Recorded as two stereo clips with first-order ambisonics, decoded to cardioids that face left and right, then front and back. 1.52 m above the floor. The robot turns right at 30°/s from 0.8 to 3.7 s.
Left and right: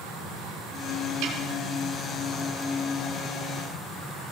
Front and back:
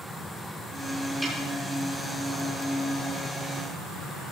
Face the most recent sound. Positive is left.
turn(degrees=-25)